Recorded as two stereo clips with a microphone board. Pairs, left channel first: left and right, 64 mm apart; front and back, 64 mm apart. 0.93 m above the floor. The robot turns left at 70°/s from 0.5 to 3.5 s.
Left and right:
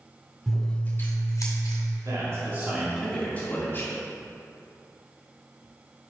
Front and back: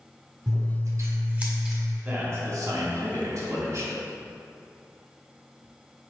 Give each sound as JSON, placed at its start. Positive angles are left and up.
{"t": 0.5, "sound": "scissors", "azimuth_deg": 175, "distance_m": 2.0}
{"t": 2.0, "sound": "a man speaking", "azimuth_deg": -115, "distance_m": 2.0}